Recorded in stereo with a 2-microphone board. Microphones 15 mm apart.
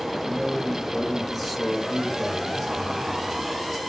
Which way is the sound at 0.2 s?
15° right (ahead or behind).